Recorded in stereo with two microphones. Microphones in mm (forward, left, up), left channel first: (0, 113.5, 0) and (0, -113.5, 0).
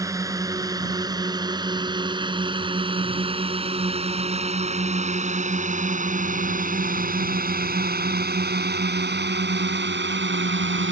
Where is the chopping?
No chopping in this recording.